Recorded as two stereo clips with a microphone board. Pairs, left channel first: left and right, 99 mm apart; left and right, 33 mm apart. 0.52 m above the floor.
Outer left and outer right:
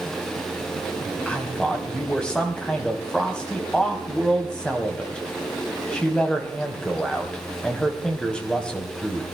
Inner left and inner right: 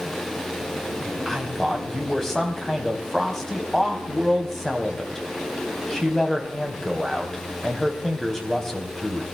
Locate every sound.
1.0 s a man speaking: 10° left (ahead or behind), 3 m